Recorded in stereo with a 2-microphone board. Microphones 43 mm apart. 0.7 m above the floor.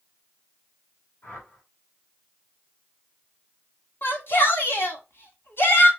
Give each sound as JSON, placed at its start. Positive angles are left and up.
{"t": 1.2, "sound": "a whoosh", "side_deg": 60, "distance_m": 2.5}
{"t": 4.0, "sound": "a shout", "side_deg": 60, "distance_m": 1.7}